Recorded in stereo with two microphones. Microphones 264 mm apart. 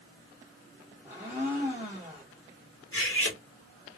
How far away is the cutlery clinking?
About 1.2 m.